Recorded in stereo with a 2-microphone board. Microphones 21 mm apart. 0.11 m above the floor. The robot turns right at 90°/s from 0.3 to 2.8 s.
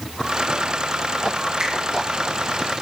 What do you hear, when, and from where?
1.6 s a finger snap: 45° right (ahead or behind), 3.5 m; by 1.7 s 55° right (ahead or behind), 3.5 m